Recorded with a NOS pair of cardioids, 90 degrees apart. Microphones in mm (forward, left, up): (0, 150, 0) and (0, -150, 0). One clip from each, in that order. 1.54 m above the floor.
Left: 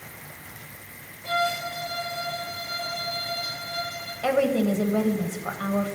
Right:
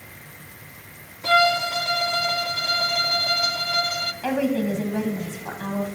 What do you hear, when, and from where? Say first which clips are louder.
1.2 s a violin: right 8 dB; 65° right, 0.6 m
4.2 s a woman speaking: left 6 dB; 20° left, 1.1 m